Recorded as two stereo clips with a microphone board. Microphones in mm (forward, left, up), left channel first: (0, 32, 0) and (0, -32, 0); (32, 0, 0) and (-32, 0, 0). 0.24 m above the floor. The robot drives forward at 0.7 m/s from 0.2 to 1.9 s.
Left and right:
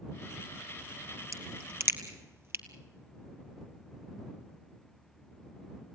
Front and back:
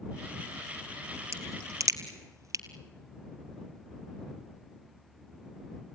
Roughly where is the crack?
Behind right.